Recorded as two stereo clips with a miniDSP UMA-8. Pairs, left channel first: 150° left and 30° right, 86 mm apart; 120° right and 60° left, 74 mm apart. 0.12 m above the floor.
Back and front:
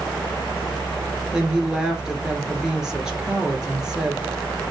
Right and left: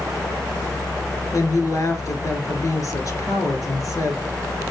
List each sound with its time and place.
1.3 s a woman speaking: 110° right, 1.6 m